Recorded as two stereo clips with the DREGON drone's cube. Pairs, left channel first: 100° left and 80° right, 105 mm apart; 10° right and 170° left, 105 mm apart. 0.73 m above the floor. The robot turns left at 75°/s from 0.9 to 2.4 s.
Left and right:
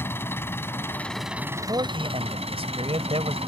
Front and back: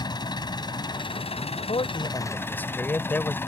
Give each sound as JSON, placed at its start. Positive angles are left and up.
{"t": 0.0, "sound": "an engine running", "azimuth_deg": 35}
{"t": 1.6, "sound": "a man speaking", "azimuth_deg": -25}